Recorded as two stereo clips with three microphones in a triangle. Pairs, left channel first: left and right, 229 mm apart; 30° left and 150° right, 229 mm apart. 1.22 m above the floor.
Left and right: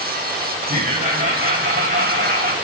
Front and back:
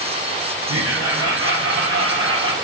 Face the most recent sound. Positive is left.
turn(degrees=-135)